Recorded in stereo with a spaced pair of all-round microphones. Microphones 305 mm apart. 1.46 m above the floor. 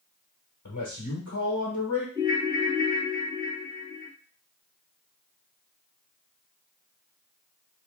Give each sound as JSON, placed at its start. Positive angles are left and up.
{"t": 0.7, "sound": "a man speaking", "side_deg": 80, "distance_m": 1.2}
{"t": 2.1, "sound": "a ringtone", "side_deg": -15, "distance_m": 1.6}